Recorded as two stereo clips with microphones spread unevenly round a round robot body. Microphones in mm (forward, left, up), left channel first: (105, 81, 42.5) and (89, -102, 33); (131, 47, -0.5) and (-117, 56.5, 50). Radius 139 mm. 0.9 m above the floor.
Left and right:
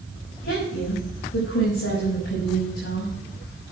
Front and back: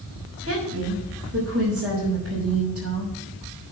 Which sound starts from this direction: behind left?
A woman speaking, at 0.4 s.